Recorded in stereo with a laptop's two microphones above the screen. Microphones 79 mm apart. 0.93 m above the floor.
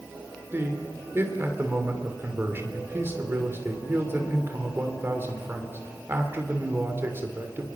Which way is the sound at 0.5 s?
30° right (ahead or behind).